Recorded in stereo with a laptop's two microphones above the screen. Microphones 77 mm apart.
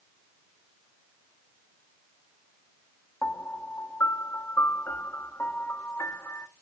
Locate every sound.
3.2 s a piano: 30° left (ahead or behind), 0.6 m